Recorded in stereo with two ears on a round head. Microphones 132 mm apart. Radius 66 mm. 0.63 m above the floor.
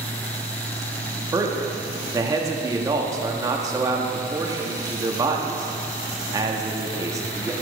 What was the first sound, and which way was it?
A man speaking, 25° right (ahead or behind).